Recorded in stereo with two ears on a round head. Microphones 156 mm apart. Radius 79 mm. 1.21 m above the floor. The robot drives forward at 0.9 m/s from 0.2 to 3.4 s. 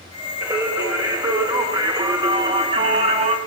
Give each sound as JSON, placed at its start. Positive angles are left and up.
{"t": 0.4, "sound": "singing", "side_deg": -15, "distance_m": 4.5}